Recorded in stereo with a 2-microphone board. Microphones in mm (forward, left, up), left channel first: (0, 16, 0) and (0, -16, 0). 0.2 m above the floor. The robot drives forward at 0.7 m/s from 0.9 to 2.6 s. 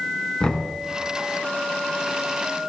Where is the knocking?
20° left (ahead or behind), 2 m.